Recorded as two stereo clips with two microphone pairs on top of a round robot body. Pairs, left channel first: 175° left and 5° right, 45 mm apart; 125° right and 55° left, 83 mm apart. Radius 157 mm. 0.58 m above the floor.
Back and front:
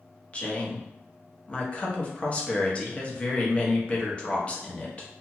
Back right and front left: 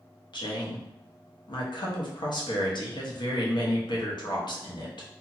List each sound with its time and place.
0.3 s a woman speaking: 120° right, 1.0 m